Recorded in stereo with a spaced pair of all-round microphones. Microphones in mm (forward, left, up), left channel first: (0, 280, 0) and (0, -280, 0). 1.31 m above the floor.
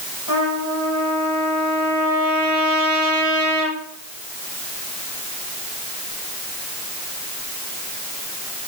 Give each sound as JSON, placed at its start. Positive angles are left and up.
{"t": 0.3, "sound": "a trumpet", "side_deg": -35, "distance_m": 4.5}